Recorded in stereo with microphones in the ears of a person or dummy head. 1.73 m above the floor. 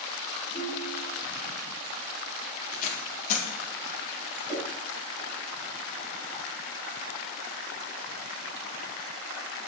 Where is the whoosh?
10° left (ahead or behind), 5 m.